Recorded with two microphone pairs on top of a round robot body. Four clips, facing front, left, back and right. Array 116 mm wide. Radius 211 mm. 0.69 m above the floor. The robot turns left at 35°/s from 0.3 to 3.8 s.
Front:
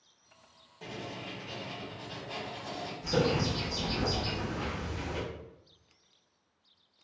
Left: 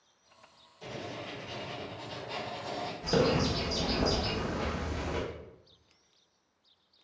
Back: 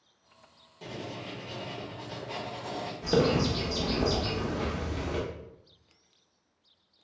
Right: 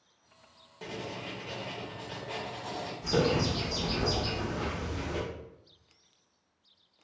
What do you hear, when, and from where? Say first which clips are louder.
0.8 s writing: right 1 dB, back 2 dB; 95° right, 1.0 m; by 2.9 s 170° right, 1.0 m
3.0 s a bird: even, back 4 dB; straight behind, 0.7 m; by 5.2 s 155° left, 0.7 m